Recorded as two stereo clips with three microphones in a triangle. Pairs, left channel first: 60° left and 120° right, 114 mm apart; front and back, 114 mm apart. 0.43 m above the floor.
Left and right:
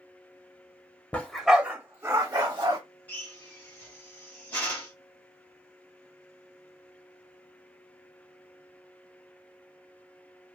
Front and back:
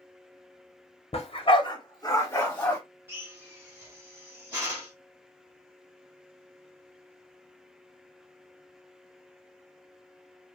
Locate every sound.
1.1 s a dog barking: 20° right, 0.7 m; by 2.8 s 75° right, 1.1 m
3.1 s a drill: 125° left, 1.3 m